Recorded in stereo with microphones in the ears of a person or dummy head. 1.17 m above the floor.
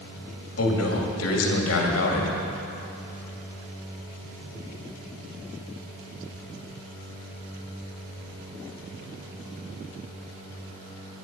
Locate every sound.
0.6 s a man speaking: 80° left, 2.5 m